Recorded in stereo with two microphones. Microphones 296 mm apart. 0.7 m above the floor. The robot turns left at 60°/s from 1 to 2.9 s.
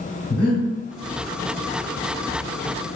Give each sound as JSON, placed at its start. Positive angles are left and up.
{"t": 0.3, "sound": "breathing", "side_deg": 50, "distance_m": 1.1}